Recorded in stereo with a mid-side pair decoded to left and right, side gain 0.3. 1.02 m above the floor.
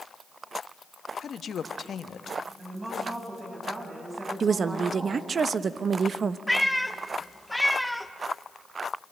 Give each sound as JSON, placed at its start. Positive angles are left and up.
{"t": 1.2, "sound": "a woman speaking", "azimuth_deg": 70, "distance_m": 1.1}
{"t": 2.6, "sound": "a woman speaking", "azimuth_deg": -50, "distance_m": 8.0}
{"t": 4.4, "sound": "a woman speaking", "azimuth_deg": -65, "distance_m": 0.9}
{"t": 6.5, "sound": "a cat meowing", "azimuth_deg": 0, "distance_m": 1.2}